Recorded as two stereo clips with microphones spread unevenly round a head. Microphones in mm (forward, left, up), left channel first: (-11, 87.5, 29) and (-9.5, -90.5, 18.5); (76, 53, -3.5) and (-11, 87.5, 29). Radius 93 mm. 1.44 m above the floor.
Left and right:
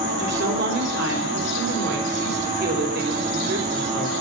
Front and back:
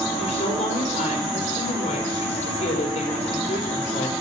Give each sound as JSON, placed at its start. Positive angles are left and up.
{"t": 0.2, "sound": "a woman speaking", "azimuth_deg": -55, "distance_m": 4.0}